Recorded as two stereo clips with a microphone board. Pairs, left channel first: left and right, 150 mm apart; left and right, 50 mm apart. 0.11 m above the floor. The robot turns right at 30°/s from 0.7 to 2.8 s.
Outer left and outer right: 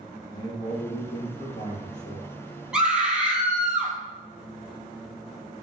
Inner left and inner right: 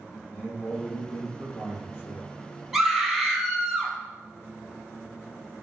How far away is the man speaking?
About 3.5 m.